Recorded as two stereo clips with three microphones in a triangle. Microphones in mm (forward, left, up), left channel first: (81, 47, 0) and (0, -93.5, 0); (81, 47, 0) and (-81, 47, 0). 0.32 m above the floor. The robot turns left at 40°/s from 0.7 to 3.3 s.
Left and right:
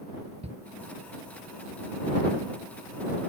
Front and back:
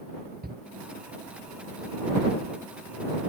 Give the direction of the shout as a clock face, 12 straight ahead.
6 o'clock.